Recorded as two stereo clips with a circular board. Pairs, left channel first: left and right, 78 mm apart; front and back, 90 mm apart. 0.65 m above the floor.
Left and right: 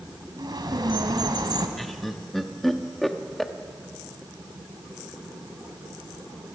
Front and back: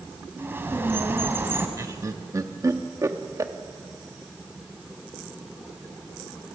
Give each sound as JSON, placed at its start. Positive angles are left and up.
{"t": 0.4, "sound": "a bird", "azimuth_deg": -115, "distance_m": 2.0}
{"t": 1.8, "sound": "laughter", "azimuth_deg": 175, "distance_m": 1.1}